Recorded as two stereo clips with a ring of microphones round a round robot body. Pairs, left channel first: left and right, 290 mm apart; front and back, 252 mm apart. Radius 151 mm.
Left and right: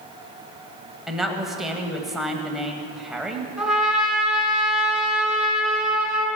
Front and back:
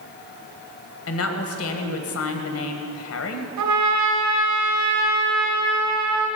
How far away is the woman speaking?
About 1.5 m.